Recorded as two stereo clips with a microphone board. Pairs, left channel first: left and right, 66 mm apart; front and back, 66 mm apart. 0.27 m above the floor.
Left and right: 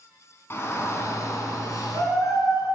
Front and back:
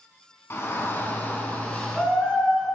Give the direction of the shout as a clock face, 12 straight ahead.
11 o'clock.